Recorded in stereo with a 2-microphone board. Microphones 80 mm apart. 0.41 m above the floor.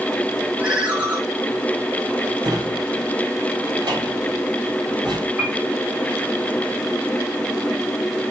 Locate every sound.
0.6 s a ringtone: 20° right (ahead or behind), 2.5 m
2.4 s a drawer: 65° right (ahead or behind), 3.5 m
5.4 s a piano: 30° right (ahead or behind), 3 m